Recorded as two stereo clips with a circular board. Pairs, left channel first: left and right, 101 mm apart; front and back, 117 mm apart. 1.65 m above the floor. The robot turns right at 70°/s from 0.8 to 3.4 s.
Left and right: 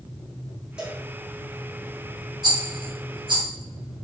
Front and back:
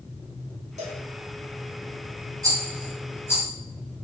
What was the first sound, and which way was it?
A cowbell, 170° right.